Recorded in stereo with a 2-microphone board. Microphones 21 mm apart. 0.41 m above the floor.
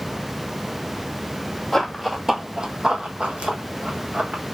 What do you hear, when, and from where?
1.7 s running footsteps: 15° left (ahead or behind), 0.6 m; by 4.4 s 75° right (ahead or behind), 1.4 m